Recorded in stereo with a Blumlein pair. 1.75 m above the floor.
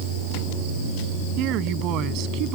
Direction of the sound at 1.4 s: 40° right.